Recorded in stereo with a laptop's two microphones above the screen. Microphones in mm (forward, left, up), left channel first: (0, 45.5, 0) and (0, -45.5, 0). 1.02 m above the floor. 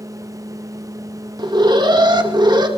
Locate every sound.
0.0 s a fan: 40° right (ahead or behind), 0.8 m
1.4 s an alarm: 55° right (ahead or behind), 2.5 m